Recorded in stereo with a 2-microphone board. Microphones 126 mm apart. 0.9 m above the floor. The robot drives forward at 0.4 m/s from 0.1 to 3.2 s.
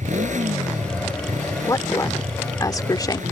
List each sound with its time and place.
0.0 s a motorcycle: 80° right; by 3.3 s 90° right
1.6 s a woman speaking: 25° left (ahead or behind); by 3.2 s 30° left (ahead or behind)